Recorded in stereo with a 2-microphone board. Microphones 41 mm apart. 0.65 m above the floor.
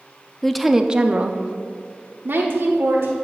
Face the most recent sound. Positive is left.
turn(degrees=-65)  # may be behind; listen again after turning